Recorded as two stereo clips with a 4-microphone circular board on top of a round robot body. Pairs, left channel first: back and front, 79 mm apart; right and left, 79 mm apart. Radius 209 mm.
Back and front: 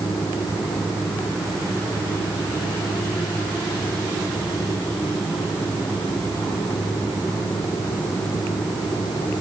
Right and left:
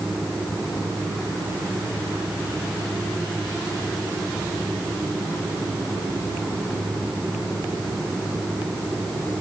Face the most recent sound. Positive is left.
No sound to turn to.